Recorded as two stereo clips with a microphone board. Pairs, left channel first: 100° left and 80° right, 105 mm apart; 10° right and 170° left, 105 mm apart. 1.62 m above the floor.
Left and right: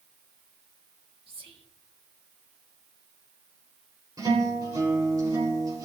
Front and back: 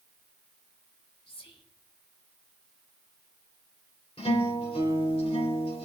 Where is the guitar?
25° right, 3.5 m.